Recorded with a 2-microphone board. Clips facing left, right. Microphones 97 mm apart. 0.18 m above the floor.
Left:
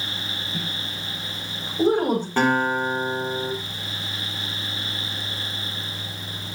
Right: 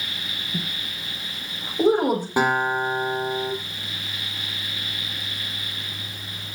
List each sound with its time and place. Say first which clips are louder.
0.5 s a woman speaking: right 3 dB; 20° right (ahead or behind), 8 m; by 2.3 s 10° right (ahead or behind), 8.5 m
2.4 s a guitar: left 1 dB; 10° right (ahead or behind), 6.5 m